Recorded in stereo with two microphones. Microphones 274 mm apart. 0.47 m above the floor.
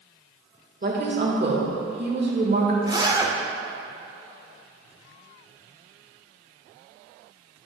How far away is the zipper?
About 0.7 m.